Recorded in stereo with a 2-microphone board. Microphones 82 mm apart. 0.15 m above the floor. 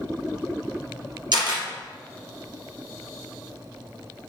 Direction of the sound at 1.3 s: 65° right (ahead or behind).